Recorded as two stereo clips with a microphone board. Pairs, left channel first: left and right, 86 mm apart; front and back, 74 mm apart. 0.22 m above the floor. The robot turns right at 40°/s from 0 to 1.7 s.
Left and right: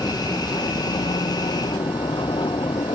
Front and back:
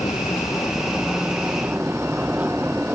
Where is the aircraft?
40° left; by 3.0 s 110° left.